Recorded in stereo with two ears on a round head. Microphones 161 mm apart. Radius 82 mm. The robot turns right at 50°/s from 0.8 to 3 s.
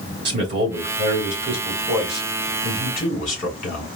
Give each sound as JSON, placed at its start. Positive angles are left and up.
{"t": 0.2, "sound": "a man speaking", "azimuth_deg": -65, "distance_m": 2.0}